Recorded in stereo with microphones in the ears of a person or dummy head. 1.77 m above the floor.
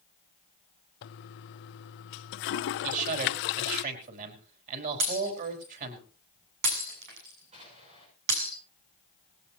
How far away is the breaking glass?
About 7 m.